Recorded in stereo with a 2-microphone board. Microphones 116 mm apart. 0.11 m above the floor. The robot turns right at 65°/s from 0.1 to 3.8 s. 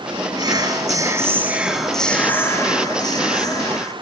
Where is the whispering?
95° right, 2.0 m; by 3.9 s 125° left, 2.0 m.